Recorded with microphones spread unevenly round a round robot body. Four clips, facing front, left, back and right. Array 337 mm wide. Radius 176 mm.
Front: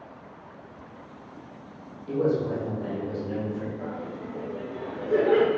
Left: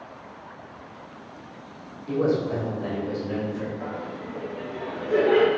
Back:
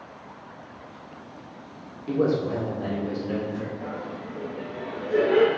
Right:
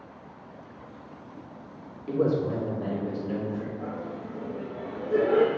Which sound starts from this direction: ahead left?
Laughter, at 3.8 s.